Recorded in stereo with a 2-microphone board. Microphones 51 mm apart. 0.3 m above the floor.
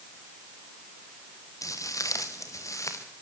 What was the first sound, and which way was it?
Footsteps, 85° left.